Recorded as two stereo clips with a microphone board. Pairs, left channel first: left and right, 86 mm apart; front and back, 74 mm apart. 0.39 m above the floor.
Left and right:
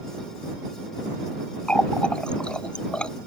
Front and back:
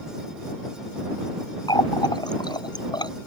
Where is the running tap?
10° left.